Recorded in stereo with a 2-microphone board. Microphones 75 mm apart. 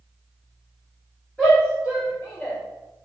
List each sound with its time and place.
1.4 s a shout: 10° left (ahead or behind), 1.1 m; by 2.6 s 35° left (ahead or behind), 2.5 m